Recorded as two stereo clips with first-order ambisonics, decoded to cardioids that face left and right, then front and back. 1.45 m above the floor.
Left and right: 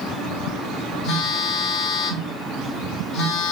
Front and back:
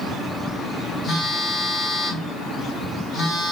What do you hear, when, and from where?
1.0 s a phone buzzing: 65° left, 1.6 m